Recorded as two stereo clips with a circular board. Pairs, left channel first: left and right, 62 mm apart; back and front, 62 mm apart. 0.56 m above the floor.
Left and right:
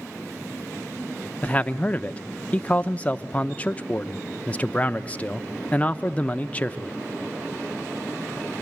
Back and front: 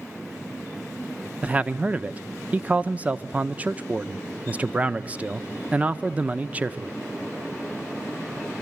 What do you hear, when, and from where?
1.4 s a man speaking: 45° left, 0.7 m